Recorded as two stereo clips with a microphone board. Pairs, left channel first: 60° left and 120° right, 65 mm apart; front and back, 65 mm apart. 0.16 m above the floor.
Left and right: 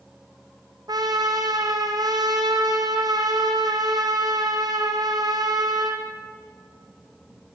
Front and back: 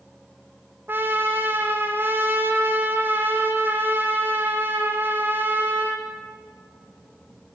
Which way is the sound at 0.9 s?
125° right.